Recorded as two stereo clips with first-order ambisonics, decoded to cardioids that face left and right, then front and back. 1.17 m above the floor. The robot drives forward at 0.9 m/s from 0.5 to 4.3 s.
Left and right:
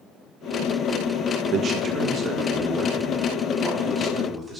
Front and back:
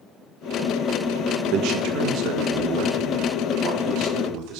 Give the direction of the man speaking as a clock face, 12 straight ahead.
5 o'clock.